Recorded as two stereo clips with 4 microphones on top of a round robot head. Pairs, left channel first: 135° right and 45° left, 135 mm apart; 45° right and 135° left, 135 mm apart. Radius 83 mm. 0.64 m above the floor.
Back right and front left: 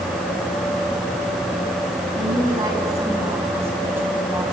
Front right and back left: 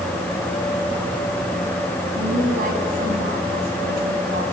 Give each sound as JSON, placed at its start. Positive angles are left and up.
{"t": 2.1, "sound": "a woman speaking", "azimuth_deg": 110, "distance_m": 5.5}